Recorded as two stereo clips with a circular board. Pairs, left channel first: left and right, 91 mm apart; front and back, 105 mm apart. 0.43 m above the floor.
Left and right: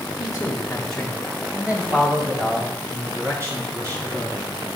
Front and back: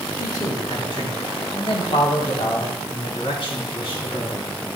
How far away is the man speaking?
About 1.9 m.